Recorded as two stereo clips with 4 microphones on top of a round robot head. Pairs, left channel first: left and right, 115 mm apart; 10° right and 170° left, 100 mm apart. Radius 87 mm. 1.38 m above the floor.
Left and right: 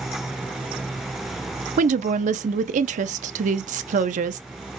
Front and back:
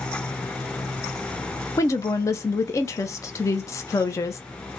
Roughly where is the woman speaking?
Right.